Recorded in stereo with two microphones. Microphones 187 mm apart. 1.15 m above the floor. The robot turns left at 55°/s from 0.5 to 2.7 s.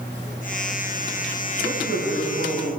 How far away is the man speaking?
About 7.5 m.